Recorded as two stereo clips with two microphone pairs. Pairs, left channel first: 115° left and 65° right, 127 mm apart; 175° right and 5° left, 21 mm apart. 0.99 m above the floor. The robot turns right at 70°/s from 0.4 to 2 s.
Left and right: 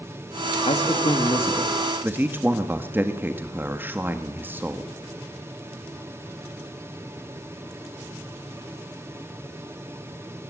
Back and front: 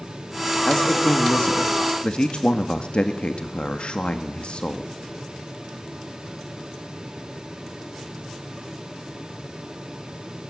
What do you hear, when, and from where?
0.7 s a man speaking: 130° left, 1.8 m; by 4.9 s 135° right, 1.8 m